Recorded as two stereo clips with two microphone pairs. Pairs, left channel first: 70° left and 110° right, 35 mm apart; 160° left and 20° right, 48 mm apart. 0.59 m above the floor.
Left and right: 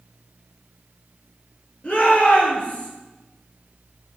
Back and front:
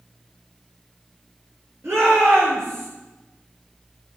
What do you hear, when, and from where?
1.8 s a shout: 15° left, 9 m